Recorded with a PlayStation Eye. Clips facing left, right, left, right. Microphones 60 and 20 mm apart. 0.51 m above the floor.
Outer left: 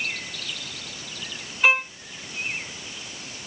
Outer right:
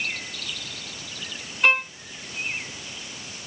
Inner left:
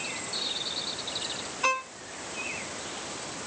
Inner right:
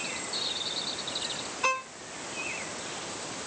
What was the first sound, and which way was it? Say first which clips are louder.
A violin: even, inner left 1 dB; 5° left (ahead or behind).